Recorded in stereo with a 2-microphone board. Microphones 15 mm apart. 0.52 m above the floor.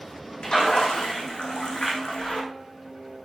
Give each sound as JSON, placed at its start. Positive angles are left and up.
{"t": 0.4, "sound": "a splash", "side_deg": 85, "distance_m": 5.0}